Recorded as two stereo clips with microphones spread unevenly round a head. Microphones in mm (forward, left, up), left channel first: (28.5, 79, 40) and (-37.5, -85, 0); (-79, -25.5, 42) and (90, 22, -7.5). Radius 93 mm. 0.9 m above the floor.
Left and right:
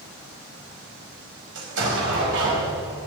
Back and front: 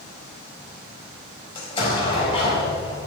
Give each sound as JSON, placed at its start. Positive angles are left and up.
{"t": 1.6, "sound": "an explosion", "azimuth_deg": -100, "distance_m": 5.0}